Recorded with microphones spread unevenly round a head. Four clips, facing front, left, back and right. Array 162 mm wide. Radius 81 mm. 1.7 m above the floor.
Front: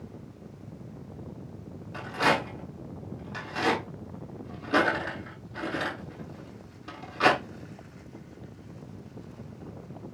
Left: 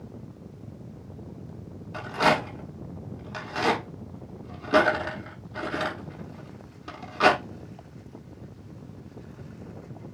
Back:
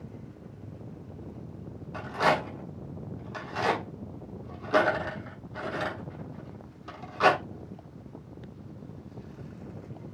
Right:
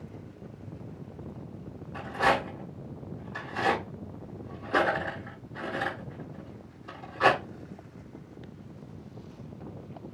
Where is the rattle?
70° left, 7 m.